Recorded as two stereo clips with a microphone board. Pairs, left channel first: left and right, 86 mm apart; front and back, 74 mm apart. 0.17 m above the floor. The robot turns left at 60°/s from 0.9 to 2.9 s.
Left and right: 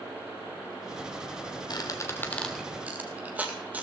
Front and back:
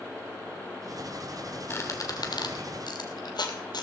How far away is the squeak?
About 1.5 m.